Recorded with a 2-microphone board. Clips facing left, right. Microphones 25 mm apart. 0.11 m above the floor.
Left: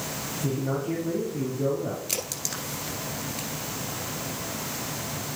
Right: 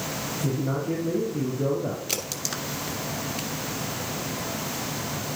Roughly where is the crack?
Centre.